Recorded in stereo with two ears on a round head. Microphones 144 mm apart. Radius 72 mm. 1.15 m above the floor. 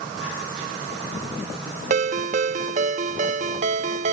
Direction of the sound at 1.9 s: 45° right (ahead or behind).